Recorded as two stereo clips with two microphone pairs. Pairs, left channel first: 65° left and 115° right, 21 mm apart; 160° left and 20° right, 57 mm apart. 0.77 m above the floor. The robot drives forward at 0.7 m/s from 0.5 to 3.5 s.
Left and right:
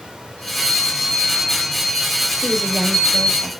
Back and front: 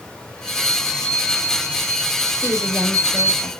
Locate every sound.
0.4 s a chime: 85° left, 5.5 m; by 3.4 s 105° left, 5.5 m
2.4 s a woman speaking: 165° right, 2 m; by 3.5 s 170° right, 2.5 m